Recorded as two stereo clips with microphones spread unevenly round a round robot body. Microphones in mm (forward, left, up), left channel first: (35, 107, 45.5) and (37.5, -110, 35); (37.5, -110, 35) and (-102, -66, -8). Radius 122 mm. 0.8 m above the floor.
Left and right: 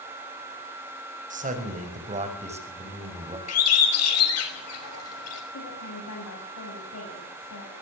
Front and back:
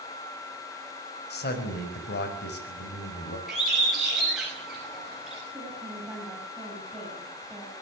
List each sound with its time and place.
1.3 s a man speaking: 35° right, 5 m; by 3.4 s 25° right, 5.5 m
3.5 s a bird: 75° left, 5.5 m
5.5 s a woman speaking: 70° left, 6.5 m